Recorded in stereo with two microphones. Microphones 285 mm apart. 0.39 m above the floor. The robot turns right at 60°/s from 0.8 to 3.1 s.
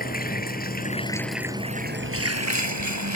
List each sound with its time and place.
0.0 s running water: 150° left; by 3.1 s 75° right